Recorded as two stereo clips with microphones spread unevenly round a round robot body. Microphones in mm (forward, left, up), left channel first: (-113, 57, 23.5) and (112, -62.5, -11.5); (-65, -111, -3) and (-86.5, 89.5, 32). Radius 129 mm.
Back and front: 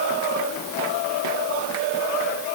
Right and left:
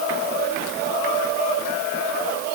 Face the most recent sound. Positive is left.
No sound to turn to.